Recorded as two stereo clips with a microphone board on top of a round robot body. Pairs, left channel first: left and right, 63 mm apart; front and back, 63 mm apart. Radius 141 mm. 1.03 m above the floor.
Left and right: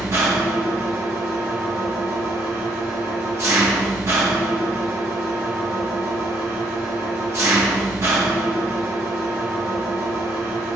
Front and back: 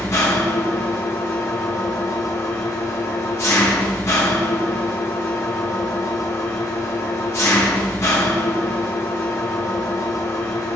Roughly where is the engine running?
Ahead right.